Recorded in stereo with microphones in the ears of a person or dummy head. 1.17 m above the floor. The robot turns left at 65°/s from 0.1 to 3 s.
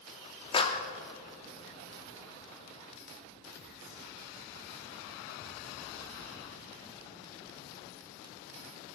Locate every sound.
0.5 s a clap: 25° left (ahead or behind), 0.8 m; by 0.9 s 45° left (ahead or behind), 0.8 m